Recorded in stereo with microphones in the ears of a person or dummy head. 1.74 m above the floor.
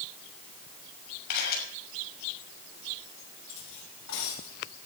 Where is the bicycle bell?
I don't hear a bicycle bell.